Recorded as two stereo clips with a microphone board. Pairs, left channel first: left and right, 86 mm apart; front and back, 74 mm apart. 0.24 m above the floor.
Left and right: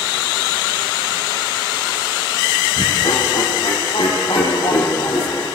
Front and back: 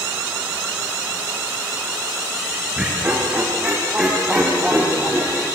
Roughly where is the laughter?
Left.